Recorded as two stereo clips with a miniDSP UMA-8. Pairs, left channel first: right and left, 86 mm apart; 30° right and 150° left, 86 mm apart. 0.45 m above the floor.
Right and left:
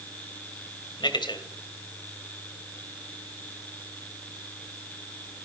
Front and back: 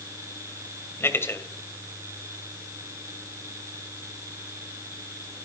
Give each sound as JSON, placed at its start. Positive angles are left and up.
{"t": 1.0, "sound": "a man speaking", "azimuth_deg": -90, "distance_m": 2.5}